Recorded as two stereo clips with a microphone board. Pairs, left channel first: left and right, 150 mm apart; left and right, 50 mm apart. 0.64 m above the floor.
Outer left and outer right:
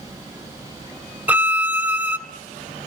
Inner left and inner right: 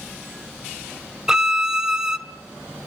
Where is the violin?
10° right (ahead or behind), 1.1 m.